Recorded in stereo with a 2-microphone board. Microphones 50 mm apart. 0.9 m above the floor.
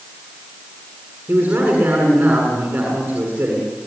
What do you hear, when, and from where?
1.3 s a man speaking: 35° right (ahead or behind), 8.5 m